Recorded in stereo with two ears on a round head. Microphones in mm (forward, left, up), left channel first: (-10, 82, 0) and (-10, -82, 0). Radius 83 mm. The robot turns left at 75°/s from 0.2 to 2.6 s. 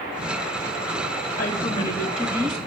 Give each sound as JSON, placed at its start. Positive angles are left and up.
{"t": 1.4, "sound": "a woman speaking", "azimuth_deg": 55, "distance_m": 3.0}